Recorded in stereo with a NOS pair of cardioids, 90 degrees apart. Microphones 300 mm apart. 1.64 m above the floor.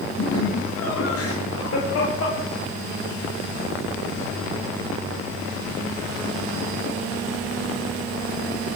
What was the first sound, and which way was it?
Laughter, 50° left.